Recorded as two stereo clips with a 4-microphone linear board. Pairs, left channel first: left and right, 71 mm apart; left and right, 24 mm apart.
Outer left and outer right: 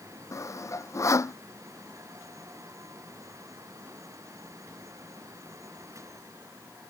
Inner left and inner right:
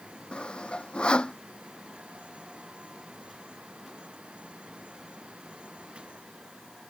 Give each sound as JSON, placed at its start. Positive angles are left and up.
{"t": 0.3, "sound": "sawing", "side_deg": 45}